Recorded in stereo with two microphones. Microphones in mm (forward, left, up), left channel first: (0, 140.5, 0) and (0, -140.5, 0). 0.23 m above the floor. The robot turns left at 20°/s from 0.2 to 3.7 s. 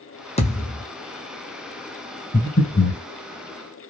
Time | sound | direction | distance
0.4 | a thud | 20° left (ahead or behind) | 1.0 m
2.3 | breathing | 40° left (ahead or behind) | 1.8 m